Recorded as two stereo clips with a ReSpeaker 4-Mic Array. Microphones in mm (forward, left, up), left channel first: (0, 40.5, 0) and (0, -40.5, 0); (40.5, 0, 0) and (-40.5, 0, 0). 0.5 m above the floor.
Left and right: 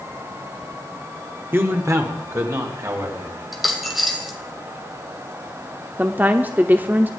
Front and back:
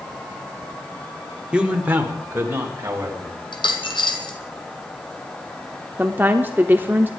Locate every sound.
1.5 s a man speaking: 115° right, 1.3 m; by 3.3 s 125° right, 3.5 m
3.5 s a dropped coin: straight ahead, 1.5 m
6.0 s a woman speaking: 135° right, 0.8 m